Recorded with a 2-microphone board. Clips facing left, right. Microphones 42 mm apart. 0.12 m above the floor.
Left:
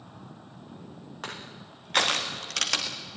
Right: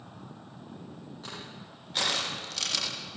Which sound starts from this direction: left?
Crushing, at 1.2 s.